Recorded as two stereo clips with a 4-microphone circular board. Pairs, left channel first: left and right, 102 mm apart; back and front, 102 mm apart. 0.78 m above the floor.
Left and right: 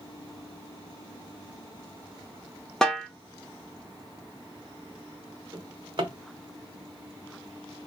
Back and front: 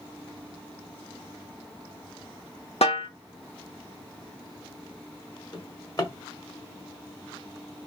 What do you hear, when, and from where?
2.8 s a snare drum: 175° left, 1.1 m
5.5 s a drawer: 130° right, 1.0 m